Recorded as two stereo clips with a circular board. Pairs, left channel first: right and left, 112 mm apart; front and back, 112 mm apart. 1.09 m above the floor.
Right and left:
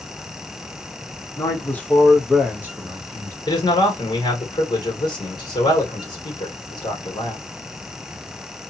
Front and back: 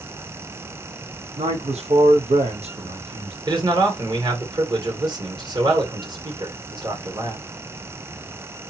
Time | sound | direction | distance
1.4 | a man speaking | 155° right | 1.2 m
3.5 | a man speaking | 135° right | 1.5 m